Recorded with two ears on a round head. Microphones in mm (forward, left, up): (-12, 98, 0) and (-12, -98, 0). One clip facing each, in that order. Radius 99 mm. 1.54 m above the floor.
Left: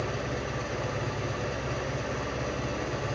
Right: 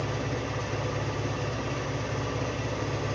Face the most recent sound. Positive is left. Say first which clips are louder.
# right 1 dB
turn(degrees=5)  # may be behind; listen again after turning